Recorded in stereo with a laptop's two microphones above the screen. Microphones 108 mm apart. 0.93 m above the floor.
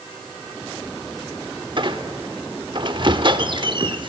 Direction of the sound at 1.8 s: 50° right (ahead or behind).